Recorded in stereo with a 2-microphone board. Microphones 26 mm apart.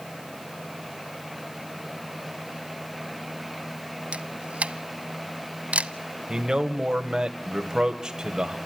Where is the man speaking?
30° right (ahead or behind), 1.9 m.